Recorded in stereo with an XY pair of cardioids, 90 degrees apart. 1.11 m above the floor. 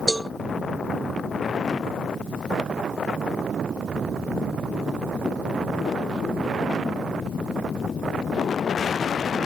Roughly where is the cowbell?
Ahead.